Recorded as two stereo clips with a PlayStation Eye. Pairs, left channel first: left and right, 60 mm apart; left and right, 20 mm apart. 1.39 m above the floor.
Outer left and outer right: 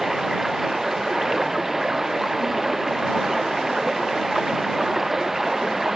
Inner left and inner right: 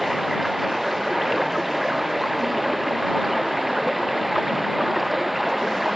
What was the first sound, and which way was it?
Running water, 5° right (ahead or behind).